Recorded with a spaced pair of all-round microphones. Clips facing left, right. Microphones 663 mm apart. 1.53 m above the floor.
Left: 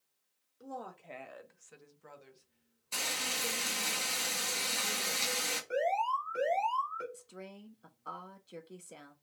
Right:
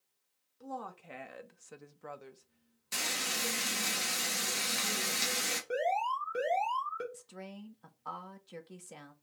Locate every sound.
0.6 s a woman speaking: 25° right (ahead or behind), 0.8 m; by 3.9 s 45° right (ahead or behind), 1.3 m
2.9 s frying: 45° right (ahead or behind), 1.1 m
5.7 s an alarm: 60° right (ahead or behind), 1.3 m
7.1 s a woman speaking: 30° right (ahead or behind), 0.5 m